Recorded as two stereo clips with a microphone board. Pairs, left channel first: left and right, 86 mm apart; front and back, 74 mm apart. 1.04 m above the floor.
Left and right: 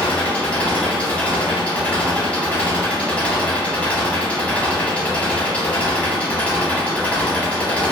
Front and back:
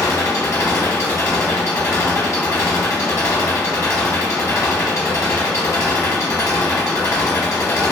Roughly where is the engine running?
Ahead.